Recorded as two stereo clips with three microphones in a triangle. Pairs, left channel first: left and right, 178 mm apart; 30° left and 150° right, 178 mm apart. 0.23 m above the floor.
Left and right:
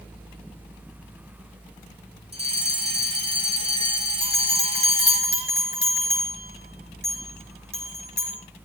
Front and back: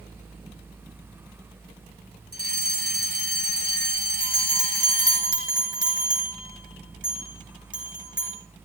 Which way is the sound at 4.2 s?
70° left.